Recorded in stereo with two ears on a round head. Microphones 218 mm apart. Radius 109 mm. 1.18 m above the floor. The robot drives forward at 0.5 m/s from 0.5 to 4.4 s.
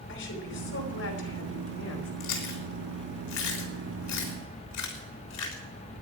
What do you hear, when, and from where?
0.1 s a woman speaking: 50° left (ahead or behind), 5 m; by 2.1 s 60° left (ahead or behind), 4.5 m
2.2 s chewing: 80° left, 3.5 m; by 5.6 s 75° left (ahead or behind), 4 m